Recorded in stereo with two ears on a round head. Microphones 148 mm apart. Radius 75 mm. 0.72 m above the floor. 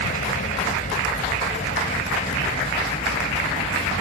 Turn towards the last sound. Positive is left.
turn(degrees=40)  # may be behind; listen again after turning